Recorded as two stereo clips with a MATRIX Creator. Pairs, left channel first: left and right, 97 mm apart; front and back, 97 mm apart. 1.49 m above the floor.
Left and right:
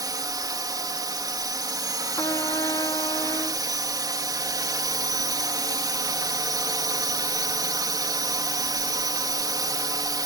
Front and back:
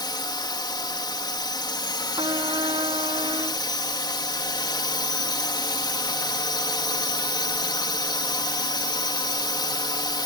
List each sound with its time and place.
0.0 s a drone: 40° right
2.2 s a trumpet: 140° left